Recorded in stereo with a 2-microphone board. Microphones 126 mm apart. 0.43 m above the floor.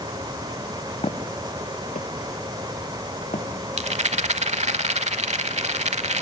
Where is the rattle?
65° right (ahead or behind), 0.9 m.